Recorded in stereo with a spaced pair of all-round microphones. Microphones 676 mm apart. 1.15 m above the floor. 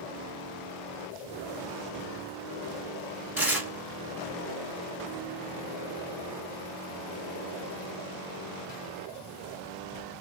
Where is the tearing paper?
5° right (ahead or behind), 1.3 m.